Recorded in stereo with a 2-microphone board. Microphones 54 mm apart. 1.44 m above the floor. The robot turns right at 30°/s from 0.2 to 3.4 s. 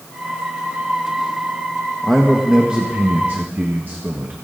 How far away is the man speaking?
About 1.4 m.